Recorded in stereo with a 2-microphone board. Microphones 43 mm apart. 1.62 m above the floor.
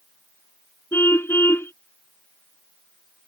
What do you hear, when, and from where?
0.9 s a car horn: 70° left (ahead or behind)